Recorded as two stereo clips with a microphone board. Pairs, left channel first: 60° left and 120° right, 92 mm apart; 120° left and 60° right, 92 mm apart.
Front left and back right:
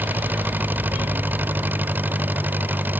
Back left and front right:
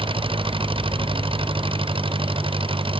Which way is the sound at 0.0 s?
50° right.